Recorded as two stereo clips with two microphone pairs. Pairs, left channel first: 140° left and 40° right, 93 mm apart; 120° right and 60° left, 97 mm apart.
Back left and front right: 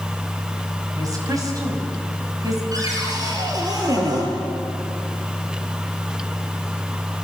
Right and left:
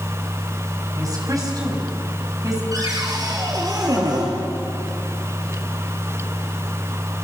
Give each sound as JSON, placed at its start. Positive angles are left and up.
{"t": 1.0, "sound": "a woman speaking", "azimuth_deg": 10, "distance_m": 6.0}
{"t": 2.7, "sound": "a cupboard door", "azimuth_deg": 10, "distance_m": 5.5}